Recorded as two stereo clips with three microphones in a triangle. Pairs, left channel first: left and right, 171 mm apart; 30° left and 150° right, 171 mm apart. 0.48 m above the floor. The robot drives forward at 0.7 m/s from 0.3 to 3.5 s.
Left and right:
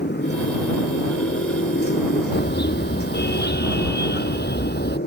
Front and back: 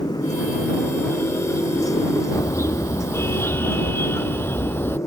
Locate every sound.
0.0 s a motorcycle: 95° left; by 5.1 s 105° left
2.3 s a car horn: 100° left; by 5.0 s 110° left